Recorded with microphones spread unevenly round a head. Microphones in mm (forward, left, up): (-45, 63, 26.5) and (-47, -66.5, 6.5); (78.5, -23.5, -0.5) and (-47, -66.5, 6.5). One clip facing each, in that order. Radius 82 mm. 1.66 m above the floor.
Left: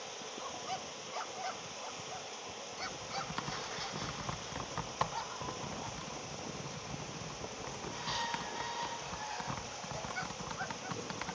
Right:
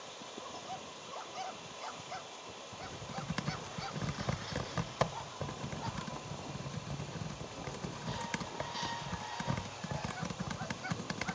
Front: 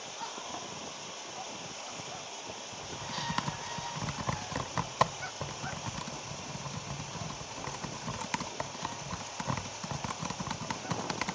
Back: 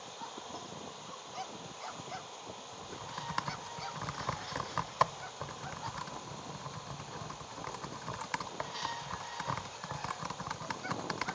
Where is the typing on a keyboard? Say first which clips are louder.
Left 1 dB, front 4 dB; 45° right, 0.8 m.